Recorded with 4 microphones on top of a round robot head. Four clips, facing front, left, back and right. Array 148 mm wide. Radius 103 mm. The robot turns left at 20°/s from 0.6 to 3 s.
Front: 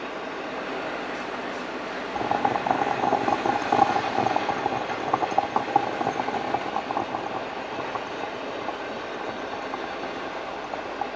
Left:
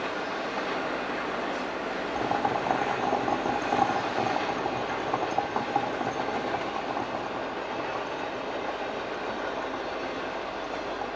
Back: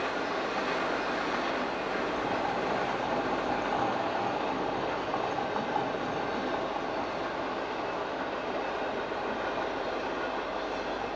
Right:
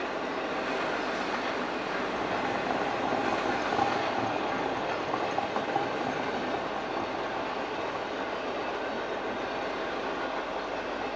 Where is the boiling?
25° left, 1.6 m; by 11.1 s 10° left, 1.6 m.